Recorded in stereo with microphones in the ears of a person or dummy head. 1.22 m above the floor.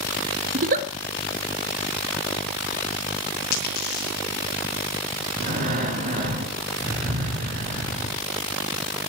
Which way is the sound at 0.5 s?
45° right (ahead or behind).